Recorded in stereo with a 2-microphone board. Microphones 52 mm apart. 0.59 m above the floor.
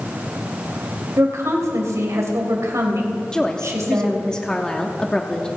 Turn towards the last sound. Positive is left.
turn(degrees=15)  # may be behind; listen again after turning